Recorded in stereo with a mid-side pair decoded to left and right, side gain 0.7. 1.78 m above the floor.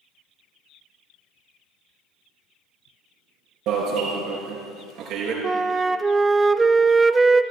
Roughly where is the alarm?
Ahead right.